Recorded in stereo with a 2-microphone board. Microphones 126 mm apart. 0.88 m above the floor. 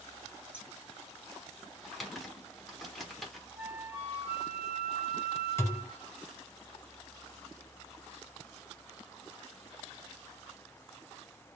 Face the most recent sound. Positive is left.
turn(degrees=25)  # may be behind; listen again after turning